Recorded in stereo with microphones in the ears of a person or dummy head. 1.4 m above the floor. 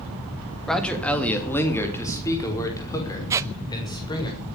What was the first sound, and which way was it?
A man speaking, 5° left (ahead or behind).